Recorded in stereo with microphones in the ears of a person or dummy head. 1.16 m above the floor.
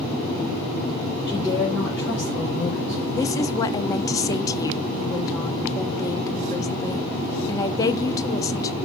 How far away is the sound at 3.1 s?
About 0.7 m.